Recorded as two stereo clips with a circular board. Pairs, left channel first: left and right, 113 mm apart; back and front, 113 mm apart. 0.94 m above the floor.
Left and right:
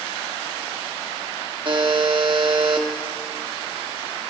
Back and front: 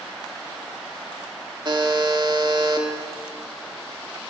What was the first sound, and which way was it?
A buzzer, 50° right.